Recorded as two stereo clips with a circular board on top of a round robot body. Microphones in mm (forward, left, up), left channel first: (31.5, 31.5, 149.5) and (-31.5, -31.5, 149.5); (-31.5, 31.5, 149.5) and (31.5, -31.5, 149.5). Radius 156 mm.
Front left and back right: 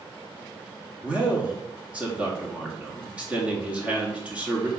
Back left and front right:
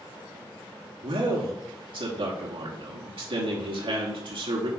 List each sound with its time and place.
1.0 s a man speaking: 60° right, 1.8 m